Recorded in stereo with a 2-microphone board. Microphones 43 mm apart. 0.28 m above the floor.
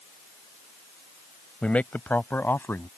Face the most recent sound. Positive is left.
turn(degrees=55)  # may be behind; listen again after turning